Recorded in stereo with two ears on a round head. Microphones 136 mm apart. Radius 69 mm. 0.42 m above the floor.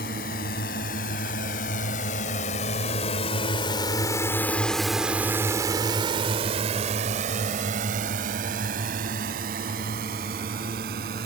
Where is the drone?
65° left (ahead or behind); by 11.3 s 70° right (ahead or behind).